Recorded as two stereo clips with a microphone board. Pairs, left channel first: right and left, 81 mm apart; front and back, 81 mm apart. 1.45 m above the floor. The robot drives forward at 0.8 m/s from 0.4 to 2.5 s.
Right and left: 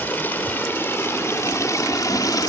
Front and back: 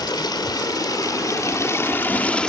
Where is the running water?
25° right, 2 m; by 2.5 s 80° right, 1.2 m.